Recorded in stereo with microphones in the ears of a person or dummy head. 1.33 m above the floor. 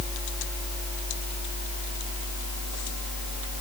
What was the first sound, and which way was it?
Only background noise.